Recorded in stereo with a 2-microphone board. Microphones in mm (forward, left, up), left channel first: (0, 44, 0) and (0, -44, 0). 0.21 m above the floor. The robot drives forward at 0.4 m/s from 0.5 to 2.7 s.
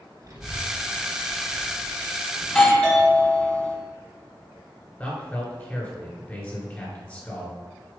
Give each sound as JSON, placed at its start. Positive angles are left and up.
{"t": 0.2, "sound": "a child speaking", "side_deg": -45, "distance_m": 2.5}
{"t": 2.4, "sound": "a doorbell", "side_deg": 10, "distance_m": 1.6}
{"t": 5.0, "sound": "a man speaking", "side_deg": 20, "distance_m": 2.0}